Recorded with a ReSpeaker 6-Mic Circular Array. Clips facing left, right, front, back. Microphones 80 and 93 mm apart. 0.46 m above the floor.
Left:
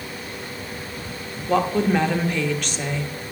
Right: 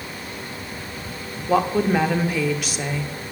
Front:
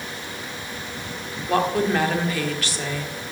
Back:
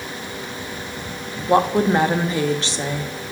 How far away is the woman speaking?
About 0.8 m.